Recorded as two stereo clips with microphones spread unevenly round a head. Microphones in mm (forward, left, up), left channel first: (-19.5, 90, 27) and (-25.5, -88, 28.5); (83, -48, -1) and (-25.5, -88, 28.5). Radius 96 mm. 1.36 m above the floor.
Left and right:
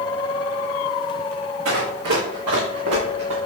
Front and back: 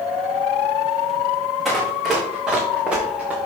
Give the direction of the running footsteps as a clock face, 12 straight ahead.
2 o'clock.